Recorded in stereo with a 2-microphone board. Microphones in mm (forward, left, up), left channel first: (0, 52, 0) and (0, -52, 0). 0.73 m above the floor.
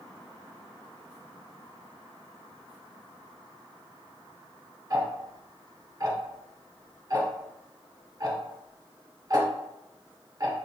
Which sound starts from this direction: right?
Ticking, at 4.9 s.